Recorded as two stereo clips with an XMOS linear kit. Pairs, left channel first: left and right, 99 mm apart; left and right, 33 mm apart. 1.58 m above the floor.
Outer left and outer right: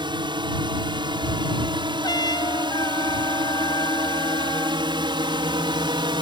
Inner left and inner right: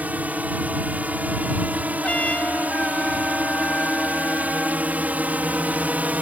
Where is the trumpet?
45° left (ahead or behind).